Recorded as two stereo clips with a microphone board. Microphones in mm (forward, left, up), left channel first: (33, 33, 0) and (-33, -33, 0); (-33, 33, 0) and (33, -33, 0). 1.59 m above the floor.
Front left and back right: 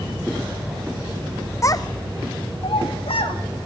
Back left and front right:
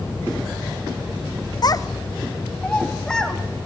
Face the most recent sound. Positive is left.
turn(degrees=50)